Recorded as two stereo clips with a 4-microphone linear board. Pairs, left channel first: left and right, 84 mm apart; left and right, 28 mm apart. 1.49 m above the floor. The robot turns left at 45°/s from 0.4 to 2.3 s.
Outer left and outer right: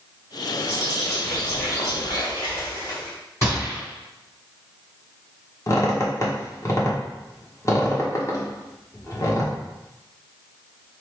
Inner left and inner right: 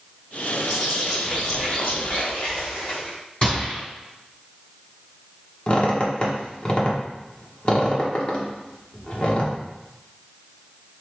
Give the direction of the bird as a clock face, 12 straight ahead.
5 o'clock.